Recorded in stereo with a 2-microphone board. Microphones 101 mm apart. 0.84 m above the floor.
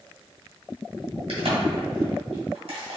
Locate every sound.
1.3 s a crack: 75° right (ahead or behind), 1.6 m